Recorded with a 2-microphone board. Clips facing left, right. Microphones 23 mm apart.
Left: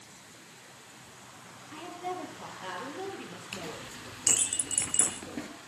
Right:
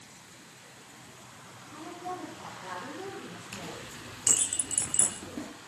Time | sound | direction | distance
1.7 | a woman speaking | 65° left (ahead or behind) | 7.5 m
3.5 | a clink | 30° left (ahead or behind) | 3 m